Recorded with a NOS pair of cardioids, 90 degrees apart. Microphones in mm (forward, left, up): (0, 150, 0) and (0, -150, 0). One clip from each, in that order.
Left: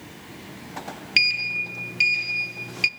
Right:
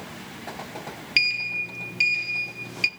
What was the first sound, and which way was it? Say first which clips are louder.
A sliding door: left 2 dB; 10° left.